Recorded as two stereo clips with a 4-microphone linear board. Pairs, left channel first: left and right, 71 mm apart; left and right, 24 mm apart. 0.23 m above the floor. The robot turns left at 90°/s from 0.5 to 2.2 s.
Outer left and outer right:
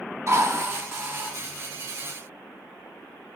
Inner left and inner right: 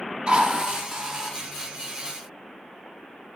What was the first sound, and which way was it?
A drill, 75° right.